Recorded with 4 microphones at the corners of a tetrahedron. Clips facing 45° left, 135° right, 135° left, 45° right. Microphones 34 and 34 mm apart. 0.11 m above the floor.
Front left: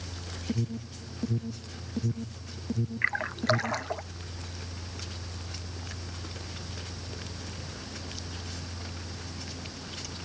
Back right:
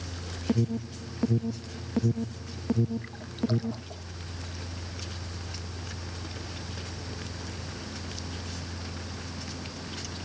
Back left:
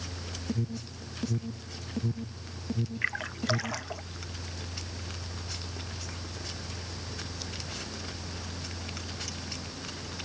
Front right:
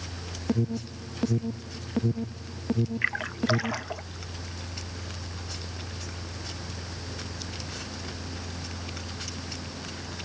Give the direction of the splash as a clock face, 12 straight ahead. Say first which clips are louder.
Front left 6 dB, even; 11 o'clock.